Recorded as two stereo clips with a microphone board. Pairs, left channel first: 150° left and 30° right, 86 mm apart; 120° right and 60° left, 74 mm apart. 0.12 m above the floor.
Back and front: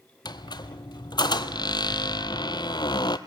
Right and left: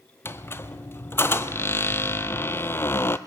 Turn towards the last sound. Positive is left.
turn(degrees=180)